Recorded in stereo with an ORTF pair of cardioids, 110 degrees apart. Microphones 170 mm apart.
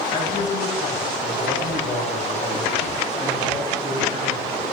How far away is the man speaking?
About 8.5 m.